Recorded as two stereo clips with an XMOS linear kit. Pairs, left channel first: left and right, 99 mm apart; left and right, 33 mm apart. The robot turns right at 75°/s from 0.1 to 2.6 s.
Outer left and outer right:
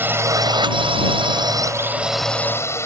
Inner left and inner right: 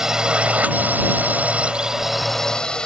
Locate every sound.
0.0 s a drone: 155° right; by 2.9 s 30° left